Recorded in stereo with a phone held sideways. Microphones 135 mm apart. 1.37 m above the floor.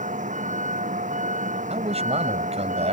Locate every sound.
0.0 s a vehicle: 70° right (ahead or behind)
1.7 s a man speaking: 55° right (ahead or behind)